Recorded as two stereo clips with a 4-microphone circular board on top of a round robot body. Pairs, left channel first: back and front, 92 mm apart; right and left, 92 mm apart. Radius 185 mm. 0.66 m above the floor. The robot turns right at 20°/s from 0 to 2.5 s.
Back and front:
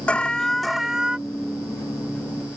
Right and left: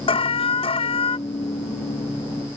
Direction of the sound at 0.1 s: 100° right.